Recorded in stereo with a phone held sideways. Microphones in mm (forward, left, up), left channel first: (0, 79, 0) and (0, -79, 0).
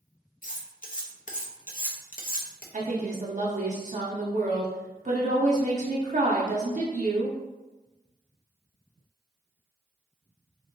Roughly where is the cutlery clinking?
Left.